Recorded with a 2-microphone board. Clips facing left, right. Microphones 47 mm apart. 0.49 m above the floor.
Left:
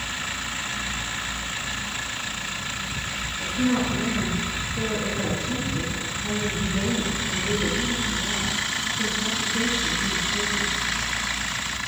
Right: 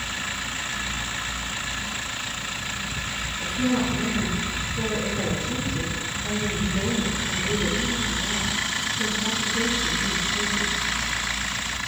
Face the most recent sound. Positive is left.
turn(degrees=45)  # may be behind; listen again after turning